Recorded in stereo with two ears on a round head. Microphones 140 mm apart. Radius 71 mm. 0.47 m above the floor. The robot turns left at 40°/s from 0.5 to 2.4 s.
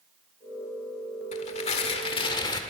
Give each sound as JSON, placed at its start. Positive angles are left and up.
{"t": 1.3, "sound": "tearing paper", "azimuth_deg": 85, "distance_m": 1.6}